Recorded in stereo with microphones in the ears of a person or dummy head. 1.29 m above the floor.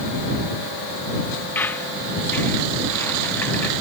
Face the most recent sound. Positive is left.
turn(degrees=15)  # may be behind; listen again after turning